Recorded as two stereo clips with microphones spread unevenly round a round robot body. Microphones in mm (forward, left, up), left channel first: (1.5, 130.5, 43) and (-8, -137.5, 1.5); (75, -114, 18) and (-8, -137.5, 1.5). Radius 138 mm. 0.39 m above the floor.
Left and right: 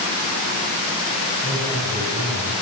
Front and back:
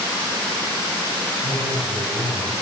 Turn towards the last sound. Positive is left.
turn(degrees=-175)